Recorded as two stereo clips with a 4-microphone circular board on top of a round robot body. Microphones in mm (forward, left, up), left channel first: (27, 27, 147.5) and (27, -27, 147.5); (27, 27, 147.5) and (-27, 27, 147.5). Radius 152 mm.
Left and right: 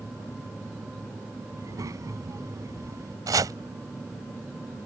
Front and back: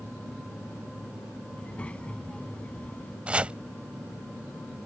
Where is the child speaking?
70° right.